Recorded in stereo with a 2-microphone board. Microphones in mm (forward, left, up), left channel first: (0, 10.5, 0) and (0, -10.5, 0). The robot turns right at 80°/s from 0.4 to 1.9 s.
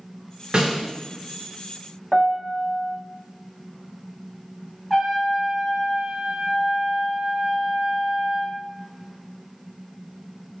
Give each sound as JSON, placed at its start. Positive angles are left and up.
{"t": 0.5, "sound": "a snare drum", "side_deg": -50, "distance_m": 2.0}
{"t": 2.1, "sound": "a piano", "side_deg": -10, "distance_m": 0.6}
{"t": 4.9, "sound": "a trumpet", "side_deg": -5, "distance_m": 2.0}